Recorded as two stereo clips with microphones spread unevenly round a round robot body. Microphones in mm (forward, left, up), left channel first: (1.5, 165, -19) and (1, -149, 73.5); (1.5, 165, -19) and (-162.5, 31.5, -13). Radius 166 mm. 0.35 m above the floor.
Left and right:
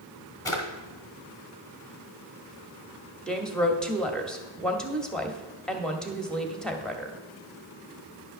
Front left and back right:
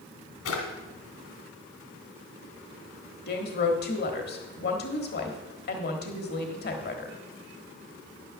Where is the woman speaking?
15° left, 1.2 m.